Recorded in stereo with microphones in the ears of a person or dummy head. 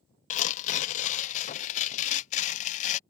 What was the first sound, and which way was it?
Tearing paper, 40° left (ahead or behind).